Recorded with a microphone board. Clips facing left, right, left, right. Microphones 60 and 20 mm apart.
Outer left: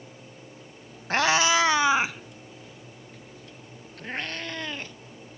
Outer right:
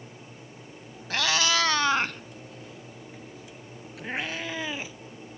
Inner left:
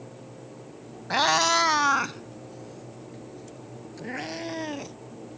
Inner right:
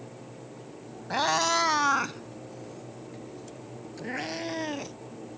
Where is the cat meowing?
35° left (ahead or behind); by 5.0 s 10° right (ahead or behind).